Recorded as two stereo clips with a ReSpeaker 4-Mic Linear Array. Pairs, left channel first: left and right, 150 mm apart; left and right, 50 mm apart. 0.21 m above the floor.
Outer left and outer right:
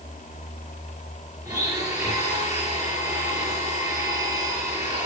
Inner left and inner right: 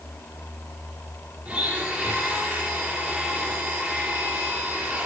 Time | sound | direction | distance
1.4 | a blender | 20° right (ahead or behind) | 4 m